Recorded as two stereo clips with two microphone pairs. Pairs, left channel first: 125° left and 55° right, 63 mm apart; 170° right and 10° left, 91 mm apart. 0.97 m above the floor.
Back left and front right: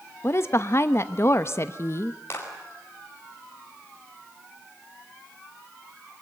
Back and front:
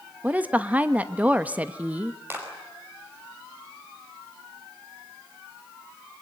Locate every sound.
0.2 s a woman speaking: 80° left, 0.9 m
2.3 s a clap: 75° left, 5 m